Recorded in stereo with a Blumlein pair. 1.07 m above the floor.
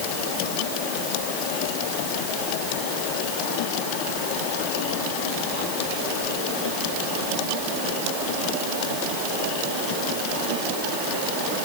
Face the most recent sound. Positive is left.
No sound to turn to.